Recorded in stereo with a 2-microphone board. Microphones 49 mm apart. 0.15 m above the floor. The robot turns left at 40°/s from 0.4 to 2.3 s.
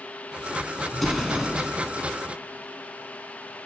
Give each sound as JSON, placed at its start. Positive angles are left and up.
{"t": 0.9, "sound": "an explosion", "side_deg": 5, "distance_m": 0.5}